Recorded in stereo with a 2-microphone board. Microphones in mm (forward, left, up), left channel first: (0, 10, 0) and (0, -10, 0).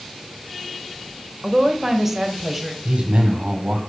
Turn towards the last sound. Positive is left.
turn(degrees=-65)  # may be behind; listen again after turning